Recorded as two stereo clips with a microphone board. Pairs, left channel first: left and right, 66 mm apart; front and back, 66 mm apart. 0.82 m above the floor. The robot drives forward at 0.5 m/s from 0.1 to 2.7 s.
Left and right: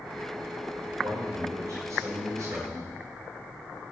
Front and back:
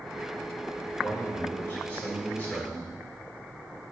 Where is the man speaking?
55° right, 3.5 m; by 3.0 s 70° right, 3 m.